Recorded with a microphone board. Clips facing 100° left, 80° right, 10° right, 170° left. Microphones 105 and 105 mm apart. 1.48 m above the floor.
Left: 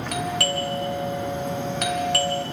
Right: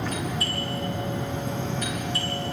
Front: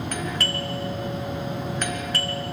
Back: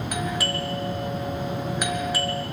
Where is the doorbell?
90° left, 1.7 m.